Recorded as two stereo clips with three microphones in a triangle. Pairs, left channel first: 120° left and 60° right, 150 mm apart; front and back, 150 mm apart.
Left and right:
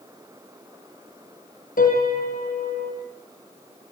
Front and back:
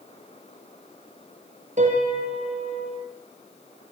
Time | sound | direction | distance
1.8 | a piano | 145° left | 5.5 m